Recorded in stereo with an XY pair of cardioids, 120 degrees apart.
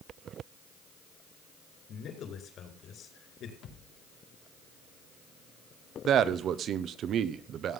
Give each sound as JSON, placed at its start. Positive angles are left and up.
{"t": 1.9, "sound": "a man speaking", "azimuth_deg": 60, "distance_m": 5.0}
{"t": 3.6, "sound": "a thud", "azimuth_deg": 60, "distance_m": 3.5}
{"t": 6.0, "sound": "a man speaking", "azimuth_deg": -55, "distance_m": 1.1}